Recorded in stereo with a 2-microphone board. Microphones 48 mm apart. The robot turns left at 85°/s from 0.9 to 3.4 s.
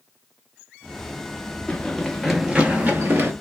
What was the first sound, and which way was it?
Running footsteps, 20° left (ahead or behind).